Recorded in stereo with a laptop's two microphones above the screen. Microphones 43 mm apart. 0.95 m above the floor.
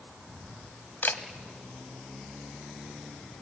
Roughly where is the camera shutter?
Left.